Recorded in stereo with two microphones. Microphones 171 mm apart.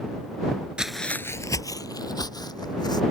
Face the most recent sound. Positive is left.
turn(degrees=25)  # may be behind; listen again after turning